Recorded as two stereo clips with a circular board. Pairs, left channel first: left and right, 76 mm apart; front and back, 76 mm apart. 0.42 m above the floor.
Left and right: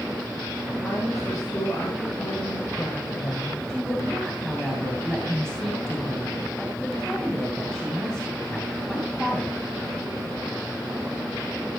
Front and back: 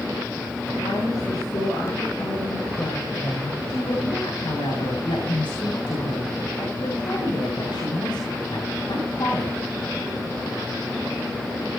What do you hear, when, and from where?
0.8 s a woman speaking: 35° left, 8.5 m
3.7 s a woman speaking: 10° left, 7.5 m